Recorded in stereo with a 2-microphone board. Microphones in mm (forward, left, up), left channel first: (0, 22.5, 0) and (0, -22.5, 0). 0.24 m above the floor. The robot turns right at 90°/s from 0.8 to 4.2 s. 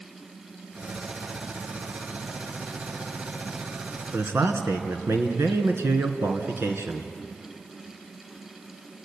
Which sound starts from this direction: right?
A man speaking, at 4.1 s.